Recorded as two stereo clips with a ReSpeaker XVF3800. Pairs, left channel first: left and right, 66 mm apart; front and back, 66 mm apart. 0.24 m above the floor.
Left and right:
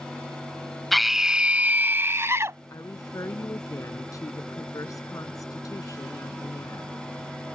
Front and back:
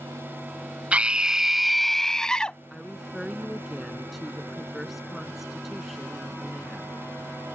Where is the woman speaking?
95° left.